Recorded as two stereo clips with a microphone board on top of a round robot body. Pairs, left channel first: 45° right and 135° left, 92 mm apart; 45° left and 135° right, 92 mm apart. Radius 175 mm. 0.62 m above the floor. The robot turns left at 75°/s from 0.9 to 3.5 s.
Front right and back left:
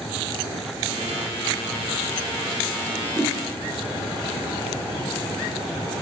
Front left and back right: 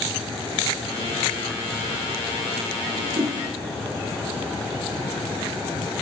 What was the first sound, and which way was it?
A whoosh, 150° right.